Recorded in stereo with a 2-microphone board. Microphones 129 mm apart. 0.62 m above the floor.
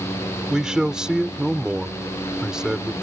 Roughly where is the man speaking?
Centre.